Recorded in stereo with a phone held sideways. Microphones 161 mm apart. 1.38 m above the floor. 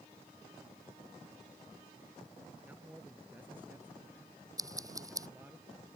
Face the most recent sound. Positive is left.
turn(degrees=-20)  # may be behind; listen again after turning